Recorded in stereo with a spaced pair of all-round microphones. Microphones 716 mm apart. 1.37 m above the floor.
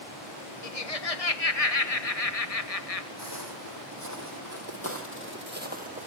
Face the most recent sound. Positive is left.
turn(degrees=-10)  # may be behind; listen again after turning